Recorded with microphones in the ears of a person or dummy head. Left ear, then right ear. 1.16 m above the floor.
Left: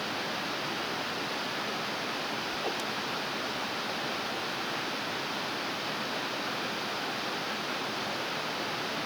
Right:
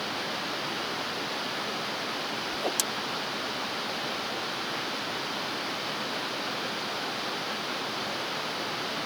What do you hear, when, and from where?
0.0 s running water: centre (ahead or behind)
2.5 s a whoosh: 80° right